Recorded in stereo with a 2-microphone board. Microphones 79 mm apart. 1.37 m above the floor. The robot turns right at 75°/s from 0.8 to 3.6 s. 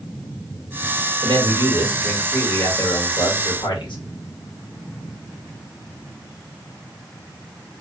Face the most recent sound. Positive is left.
turn(degrees=105)